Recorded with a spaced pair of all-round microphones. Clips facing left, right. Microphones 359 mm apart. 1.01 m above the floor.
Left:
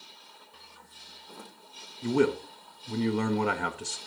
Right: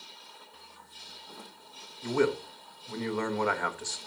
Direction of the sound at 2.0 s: 45° left (ahead or behind).